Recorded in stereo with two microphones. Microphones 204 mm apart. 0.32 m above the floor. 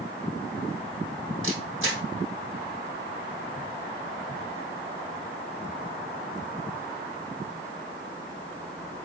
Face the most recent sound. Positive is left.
turn(degrees=-70)  # may be behind; listen again after turning